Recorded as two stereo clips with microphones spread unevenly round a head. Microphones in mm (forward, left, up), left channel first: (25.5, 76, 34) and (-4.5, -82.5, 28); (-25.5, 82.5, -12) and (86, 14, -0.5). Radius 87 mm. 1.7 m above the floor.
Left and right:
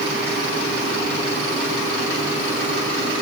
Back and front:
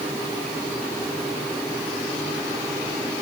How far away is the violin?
I don't hear a violin.